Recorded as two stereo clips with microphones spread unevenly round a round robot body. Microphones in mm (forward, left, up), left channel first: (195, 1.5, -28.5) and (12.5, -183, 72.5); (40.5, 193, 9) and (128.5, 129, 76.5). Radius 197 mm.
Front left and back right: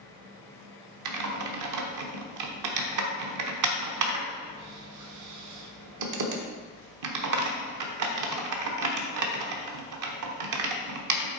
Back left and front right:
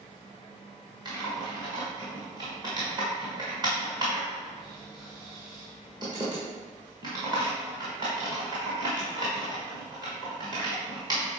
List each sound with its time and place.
1.1 s typing on a keyboard: 120° right, 1.1 m